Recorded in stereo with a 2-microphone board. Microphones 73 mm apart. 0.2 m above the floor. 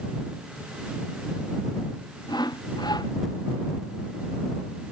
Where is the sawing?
65° left (ahead or behind).